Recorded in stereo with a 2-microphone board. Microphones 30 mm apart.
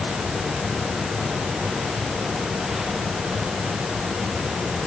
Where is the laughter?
I don't hear laughter.